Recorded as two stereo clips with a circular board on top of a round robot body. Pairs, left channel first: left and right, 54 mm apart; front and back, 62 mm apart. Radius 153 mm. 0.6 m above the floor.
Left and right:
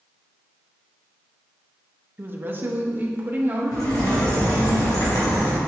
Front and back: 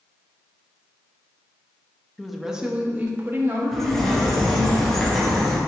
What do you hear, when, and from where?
2.2 s a woman speaking: 85° right, 1.1 m; by 4.7 s 150° right, 2 m
3.7 s a bird: 85° left, 1.8 m